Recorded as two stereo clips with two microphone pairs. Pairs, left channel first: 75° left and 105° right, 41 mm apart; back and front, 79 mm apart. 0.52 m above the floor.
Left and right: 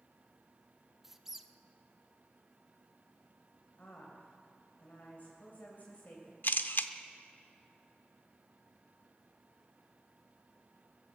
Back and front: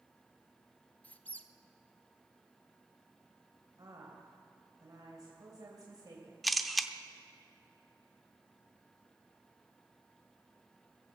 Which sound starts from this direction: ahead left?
A woman speaking, at 3.8 s.